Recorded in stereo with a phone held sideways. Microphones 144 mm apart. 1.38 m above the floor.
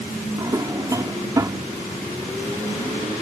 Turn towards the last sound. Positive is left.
turn(degrees=-25)  # may be behind; listen again after turning